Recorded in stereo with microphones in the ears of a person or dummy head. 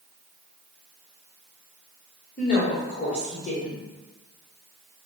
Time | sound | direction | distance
2.4 | a woman speaking | 40° left (ahead or behind) | 1.0 m